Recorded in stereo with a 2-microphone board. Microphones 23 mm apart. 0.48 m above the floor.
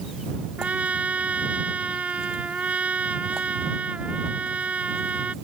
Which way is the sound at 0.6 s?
80° right.